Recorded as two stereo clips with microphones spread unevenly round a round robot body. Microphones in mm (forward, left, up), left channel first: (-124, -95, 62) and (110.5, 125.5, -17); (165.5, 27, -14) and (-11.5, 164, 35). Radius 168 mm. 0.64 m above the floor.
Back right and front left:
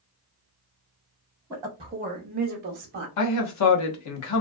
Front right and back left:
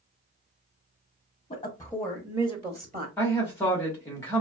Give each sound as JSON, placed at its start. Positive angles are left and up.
{"t": 1.5, "sound": "a woman speaking", "azimuth_deg": -20, "distance_m": 0.7}
{"t": 3.2, "sound": "a man speaking", "azimuth_deg": -100, "distance_m": 0.8}